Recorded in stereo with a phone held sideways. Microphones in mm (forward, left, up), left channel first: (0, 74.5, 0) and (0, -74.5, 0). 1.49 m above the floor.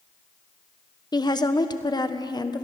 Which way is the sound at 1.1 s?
30° left (ahead or behind).